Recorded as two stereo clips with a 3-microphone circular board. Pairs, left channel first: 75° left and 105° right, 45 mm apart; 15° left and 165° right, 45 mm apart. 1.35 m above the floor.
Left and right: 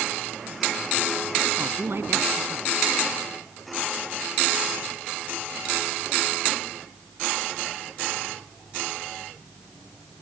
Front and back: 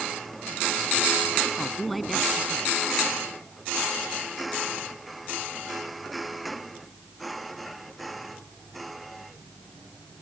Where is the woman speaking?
75° right.